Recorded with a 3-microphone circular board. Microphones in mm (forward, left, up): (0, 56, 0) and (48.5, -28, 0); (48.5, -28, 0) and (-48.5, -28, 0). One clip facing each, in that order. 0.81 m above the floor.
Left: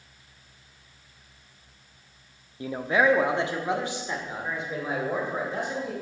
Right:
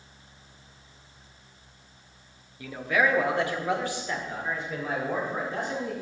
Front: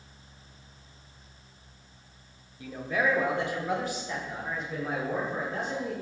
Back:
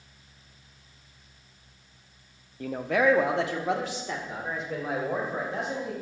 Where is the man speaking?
170° left, 0.6 m; by 5.9 s 165° right, 4 m.